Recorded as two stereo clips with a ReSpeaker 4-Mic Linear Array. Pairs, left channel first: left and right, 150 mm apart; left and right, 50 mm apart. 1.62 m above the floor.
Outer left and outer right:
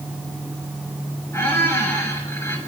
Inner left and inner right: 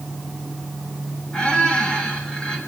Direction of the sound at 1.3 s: 15° left (ahead or behind).